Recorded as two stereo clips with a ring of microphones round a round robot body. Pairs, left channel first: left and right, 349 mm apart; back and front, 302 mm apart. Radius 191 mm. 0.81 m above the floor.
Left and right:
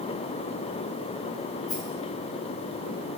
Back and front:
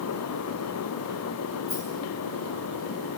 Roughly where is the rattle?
Behind left.